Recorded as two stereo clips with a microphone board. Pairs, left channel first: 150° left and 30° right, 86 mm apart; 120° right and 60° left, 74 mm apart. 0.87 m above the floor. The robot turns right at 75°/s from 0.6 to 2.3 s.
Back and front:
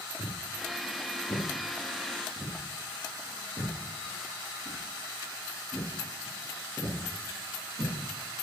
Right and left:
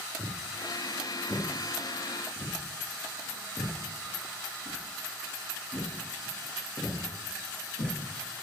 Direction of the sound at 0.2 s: 130° left.